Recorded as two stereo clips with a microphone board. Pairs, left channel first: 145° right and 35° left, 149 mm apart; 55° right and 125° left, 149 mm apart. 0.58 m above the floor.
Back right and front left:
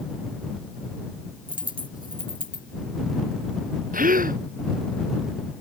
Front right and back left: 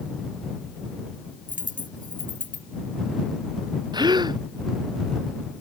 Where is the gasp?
60° left.